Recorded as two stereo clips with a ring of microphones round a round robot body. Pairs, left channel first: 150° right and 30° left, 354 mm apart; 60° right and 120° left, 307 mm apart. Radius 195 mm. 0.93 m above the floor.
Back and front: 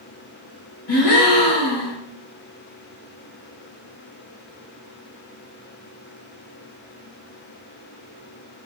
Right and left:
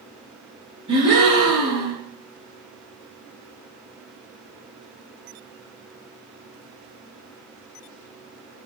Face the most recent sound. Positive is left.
turn(degrees=-165)